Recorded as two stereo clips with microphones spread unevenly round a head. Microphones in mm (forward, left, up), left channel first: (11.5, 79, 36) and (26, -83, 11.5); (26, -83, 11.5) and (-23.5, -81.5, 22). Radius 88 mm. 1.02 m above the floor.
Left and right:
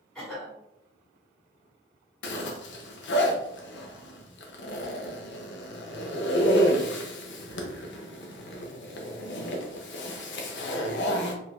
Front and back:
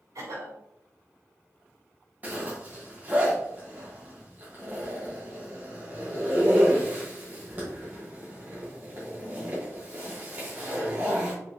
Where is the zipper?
105° left, 0.9 m.